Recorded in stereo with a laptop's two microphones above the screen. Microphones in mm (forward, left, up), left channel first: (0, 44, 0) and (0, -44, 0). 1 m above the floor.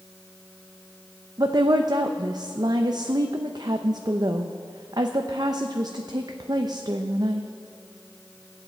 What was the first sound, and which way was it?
A woman speaking, 50° right (ahead or behind).